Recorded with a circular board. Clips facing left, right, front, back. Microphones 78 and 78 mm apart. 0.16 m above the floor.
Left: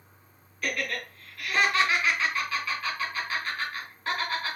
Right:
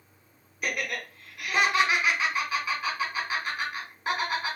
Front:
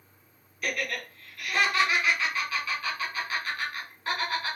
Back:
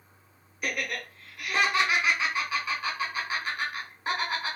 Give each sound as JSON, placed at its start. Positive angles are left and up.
{"t": 0.6, "sound": "laughter", "azimuth_deg": -140, "distance_m": 1.2}